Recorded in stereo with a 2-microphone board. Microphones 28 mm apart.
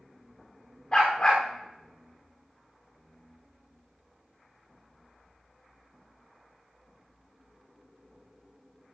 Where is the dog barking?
30° left (ahead or behind), 4.5 m.